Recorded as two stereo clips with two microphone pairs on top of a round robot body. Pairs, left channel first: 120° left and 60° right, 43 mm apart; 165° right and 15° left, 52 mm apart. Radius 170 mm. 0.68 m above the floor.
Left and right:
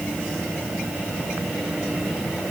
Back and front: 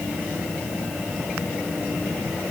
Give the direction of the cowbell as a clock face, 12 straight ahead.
No cowbell in this recording.